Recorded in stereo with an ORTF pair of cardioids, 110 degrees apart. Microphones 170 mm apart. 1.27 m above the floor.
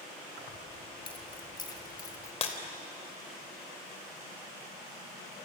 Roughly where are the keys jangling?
Ahead left.